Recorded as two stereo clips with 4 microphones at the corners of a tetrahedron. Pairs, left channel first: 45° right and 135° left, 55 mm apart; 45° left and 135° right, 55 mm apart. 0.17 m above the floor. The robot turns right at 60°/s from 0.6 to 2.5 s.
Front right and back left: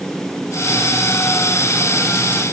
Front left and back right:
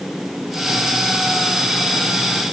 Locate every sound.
Only background noise.